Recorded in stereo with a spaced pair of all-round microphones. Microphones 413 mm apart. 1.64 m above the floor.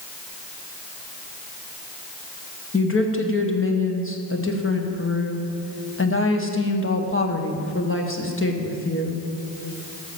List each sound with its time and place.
2.7 s a woman speaking: 30° left (ahead or behind), 1.5 m